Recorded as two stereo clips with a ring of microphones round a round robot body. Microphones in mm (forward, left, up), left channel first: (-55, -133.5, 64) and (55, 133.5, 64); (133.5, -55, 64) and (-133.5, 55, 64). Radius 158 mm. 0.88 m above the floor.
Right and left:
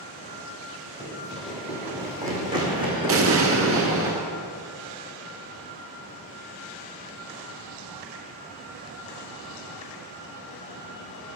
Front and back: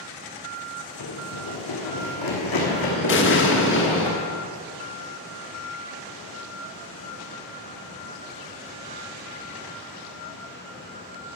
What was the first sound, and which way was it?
Running footsteps, 40° right.